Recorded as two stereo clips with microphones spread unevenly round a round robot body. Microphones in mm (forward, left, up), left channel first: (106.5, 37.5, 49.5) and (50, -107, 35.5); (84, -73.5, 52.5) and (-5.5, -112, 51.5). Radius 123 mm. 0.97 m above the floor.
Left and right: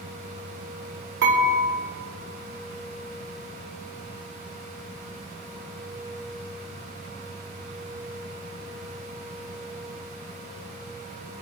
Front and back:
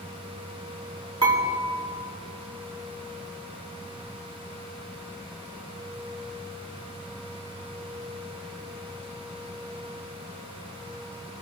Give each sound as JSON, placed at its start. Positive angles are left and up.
{"t": 1.2, "sound": "dishes clattering", "azimuth_deg": -130, "distance_m": 6.0}